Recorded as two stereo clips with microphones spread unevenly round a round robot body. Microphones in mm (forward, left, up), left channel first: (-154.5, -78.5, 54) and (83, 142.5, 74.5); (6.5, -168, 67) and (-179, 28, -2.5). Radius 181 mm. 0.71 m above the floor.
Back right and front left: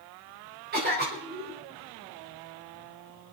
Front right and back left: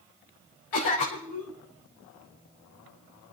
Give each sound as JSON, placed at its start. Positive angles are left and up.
{"t": 0.7, "sound": "a cough", "azimuth_deg": -20, "distance_m": 4.5}